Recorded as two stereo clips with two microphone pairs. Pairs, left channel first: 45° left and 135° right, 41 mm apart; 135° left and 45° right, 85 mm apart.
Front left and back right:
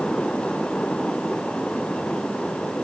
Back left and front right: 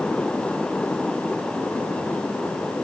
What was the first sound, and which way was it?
Only background noise.